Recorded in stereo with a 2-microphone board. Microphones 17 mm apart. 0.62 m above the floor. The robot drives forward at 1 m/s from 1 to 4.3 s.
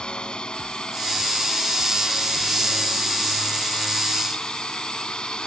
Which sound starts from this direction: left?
A drone, at 0.0 s.